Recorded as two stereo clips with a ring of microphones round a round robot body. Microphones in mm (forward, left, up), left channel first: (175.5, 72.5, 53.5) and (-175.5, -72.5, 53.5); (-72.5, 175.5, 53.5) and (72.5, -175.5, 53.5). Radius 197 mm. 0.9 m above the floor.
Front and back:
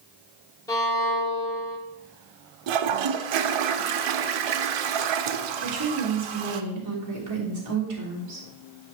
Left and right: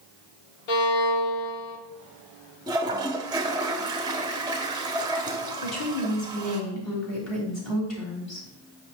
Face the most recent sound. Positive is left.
turn(degrees=160)